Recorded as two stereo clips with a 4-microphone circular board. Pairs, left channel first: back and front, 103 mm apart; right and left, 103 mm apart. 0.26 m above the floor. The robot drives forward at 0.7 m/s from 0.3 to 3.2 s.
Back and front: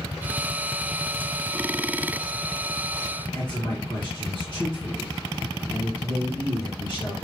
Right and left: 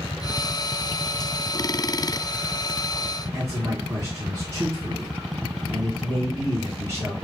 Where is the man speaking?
150° left, 2.0 m.